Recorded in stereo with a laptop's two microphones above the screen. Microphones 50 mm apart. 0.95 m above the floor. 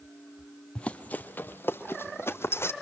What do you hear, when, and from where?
0.8 s running footsteps: 20° left (ahead or behind), 1.1 m; by 2.7 s 60° left (ahead or behind), 2.0 m